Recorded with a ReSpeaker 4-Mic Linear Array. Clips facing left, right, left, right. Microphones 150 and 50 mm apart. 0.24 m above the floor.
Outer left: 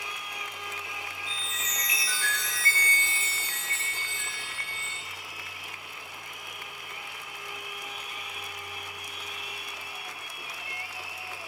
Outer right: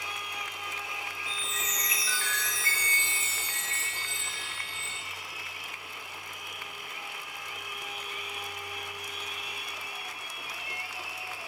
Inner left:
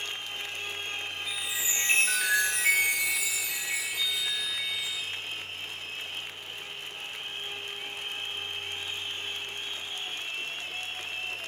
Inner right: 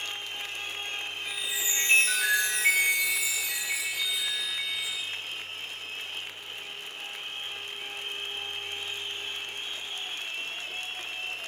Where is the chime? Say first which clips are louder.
Outer right 1 dB, inner right 1 dB; 5° left (ahead or behind), 1.3 m.